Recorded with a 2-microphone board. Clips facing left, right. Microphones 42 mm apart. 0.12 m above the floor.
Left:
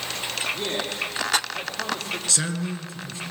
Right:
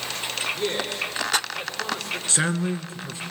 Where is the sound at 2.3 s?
30° right (ahead or behind), 1.3 m.